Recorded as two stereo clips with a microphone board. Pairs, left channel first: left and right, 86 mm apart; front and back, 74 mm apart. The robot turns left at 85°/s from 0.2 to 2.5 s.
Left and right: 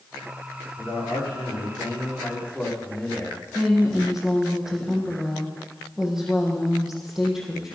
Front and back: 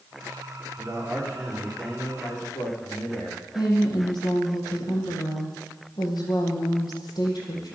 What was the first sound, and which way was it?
A man speaking, 150° left.